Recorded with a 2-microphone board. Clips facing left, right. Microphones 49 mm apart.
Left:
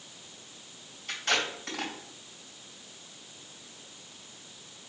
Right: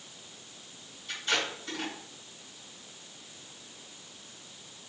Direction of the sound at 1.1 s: 65° left (ahead or behind).